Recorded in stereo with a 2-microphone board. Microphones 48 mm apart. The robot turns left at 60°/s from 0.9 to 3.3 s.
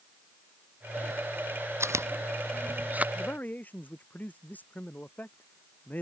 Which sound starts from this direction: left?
A man speaking, at 3.1 s.